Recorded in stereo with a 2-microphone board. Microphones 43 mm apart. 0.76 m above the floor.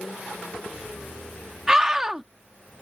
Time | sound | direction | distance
1.7 | a scream | 15° right (ahead or behind) | ?